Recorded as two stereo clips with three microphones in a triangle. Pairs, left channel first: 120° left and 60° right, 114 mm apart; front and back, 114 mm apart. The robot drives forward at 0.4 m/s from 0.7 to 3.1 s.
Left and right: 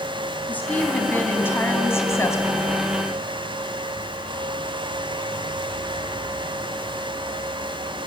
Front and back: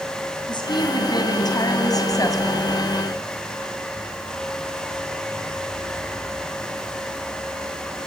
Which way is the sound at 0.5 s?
45° left.